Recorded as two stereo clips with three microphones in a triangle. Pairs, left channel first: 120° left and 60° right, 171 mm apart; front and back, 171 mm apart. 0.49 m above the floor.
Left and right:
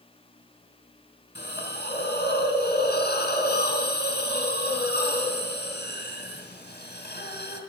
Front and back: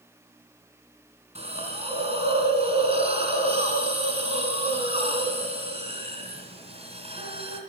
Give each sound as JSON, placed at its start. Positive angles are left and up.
{"t": 1.4, "sound": "a hiss", "azimuth_deg": 130, "distance_m": 2.5}